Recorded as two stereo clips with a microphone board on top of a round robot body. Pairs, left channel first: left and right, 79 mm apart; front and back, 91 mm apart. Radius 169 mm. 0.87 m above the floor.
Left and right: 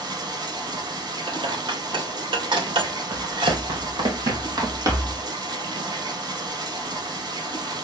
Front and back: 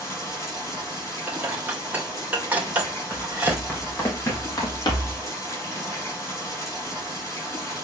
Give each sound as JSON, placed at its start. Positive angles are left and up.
{"t": 0.0, "sound": "running water", "azimuth_deg": -60, "distance_m": 5.0}
{"t": 1.3, "sound": "dishes clattering", "azimuth_deg": -105, "distance_m": 2.0}
{"t": 3.1, "sound": "running footsteps", "azimuth_deg": -80, "distance_m": 3.5}